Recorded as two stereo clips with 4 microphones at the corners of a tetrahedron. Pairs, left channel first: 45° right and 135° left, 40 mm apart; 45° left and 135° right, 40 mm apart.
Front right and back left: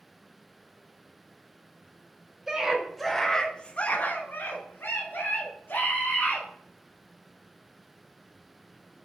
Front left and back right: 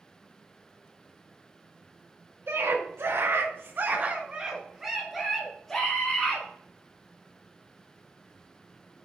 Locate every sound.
2.5 s a scream: 145° right, 1.9 m; by 6.5 s 25° right, 3 m